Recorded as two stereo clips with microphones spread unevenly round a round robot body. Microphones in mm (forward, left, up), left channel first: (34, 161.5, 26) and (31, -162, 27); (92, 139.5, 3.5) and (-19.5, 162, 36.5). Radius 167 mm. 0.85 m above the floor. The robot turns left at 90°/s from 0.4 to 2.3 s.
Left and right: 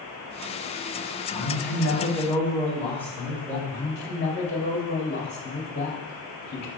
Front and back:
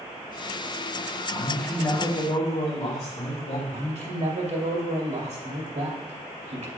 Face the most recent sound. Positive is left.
turn(degrees=150)